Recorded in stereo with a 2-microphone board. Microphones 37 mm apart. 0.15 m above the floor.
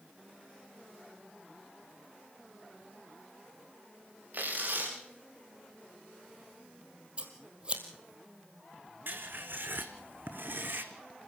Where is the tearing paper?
50° right (ahead or behind), 8 m.